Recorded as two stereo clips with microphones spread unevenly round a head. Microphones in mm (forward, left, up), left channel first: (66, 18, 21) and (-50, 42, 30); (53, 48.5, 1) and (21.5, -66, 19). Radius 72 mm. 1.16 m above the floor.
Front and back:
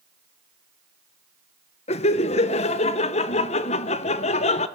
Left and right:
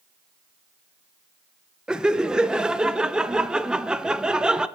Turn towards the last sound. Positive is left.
turn(degrees=-20)